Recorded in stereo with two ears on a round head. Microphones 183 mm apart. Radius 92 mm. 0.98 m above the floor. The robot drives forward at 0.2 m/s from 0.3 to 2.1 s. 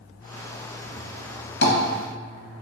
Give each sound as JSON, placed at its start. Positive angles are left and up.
{"t": 1.6, "sound": "tapping", "side_deg": 60, "distance_m": 1.1}